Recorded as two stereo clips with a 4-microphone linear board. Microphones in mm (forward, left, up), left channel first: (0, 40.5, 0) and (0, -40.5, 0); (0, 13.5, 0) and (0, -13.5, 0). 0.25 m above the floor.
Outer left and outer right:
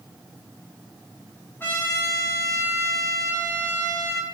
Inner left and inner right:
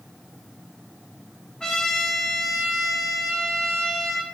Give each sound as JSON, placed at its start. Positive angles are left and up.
{"t": 1.6, "sound": "a trumpet", "side_deg": 30, "distance_m": 1.9}